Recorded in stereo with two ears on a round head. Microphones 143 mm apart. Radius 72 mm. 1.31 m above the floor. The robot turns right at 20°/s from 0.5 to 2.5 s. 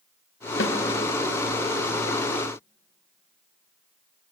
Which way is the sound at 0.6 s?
90° left.